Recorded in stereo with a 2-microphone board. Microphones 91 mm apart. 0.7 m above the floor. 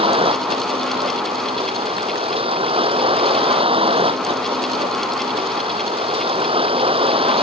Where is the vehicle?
90° right.